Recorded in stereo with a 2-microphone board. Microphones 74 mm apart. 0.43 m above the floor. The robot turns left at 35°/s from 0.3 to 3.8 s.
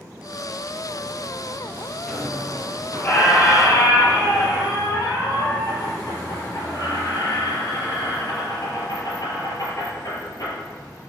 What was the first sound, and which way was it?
A squeak, 175° right.